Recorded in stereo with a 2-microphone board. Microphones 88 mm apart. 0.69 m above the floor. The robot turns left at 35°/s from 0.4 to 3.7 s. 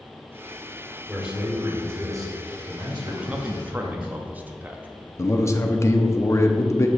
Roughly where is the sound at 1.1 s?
Ahead.